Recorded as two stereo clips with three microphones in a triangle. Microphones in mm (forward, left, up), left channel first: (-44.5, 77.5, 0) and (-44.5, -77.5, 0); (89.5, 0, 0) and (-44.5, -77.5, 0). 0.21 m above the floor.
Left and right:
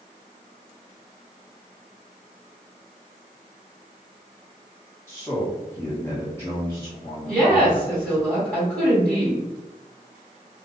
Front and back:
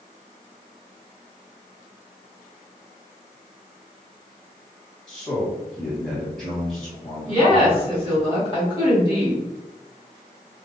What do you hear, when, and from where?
5.1 s a man speaking: 115° left, 1.6 m
7.3 s a woman speaking: 15° left, 1.8 m